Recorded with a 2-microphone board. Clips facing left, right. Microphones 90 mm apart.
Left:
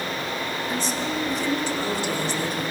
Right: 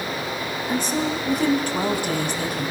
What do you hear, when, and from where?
0.7 s a woman speaking: 55° right (ahead or behind), 3.5 m